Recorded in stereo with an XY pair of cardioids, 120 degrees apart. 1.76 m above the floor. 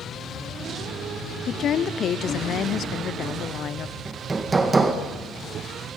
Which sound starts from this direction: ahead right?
Hammering, at 4.0 s.